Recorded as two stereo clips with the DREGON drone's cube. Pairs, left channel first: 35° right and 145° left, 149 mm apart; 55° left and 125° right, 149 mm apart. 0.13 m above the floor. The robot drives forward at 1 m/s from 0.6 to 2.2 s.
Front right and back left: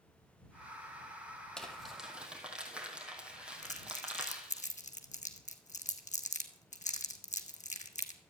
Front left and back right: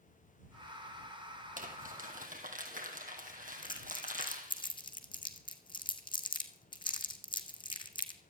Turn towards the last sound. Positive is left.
turn(degrees=0)